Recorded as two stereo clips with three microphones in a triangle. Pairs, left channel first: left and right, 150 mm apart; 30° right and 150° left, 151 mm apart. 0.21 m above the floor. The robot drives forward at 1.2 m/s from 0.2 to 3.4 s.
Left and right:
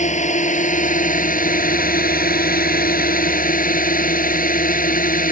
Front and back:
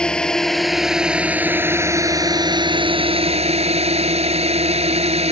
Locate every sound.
0.0 s a drone: 55° left; by 5.3 s 105° left